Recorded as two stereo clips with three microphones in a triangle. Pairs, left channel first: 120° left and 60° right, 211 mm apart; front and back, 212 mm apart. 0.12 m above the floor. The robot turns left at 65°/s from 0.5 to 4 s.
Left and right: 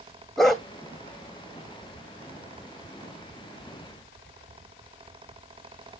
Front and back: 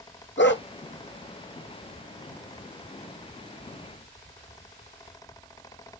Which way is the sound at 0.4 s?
30° left.